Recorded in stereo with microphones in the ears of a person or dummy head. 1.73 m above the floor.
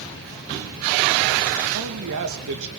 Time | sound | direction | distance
1.7 | a man speaking | 70° right (ahead or behind) | 2.5 m